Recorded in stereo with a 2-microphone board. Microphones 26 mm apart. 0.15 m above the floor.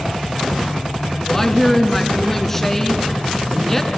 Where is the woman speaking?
15° left (ahead or behind), 1.9 m.